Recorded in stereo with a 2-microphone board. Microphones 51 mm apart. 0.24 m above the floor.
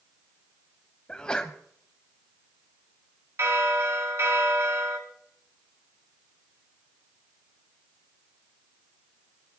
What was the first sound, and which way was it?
A sneeze, 20° left (ahead or behind).